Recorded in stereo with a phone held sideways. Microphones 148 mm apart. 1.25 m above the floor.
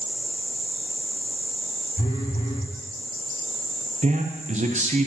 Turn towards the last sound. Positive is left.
turn(degrees=-55)  # may be behind; listen again after turning